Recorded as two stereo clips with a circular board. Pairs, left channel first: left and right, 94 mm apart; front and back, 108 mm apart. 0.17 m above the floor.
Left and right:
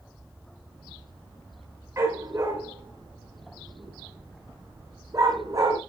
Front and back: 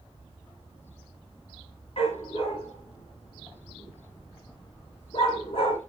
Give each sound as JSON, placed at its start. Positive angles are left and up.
{"t": 2.0, "sound": "a dog barking", "azimuth_deg": -30, "distance_m": 9.5}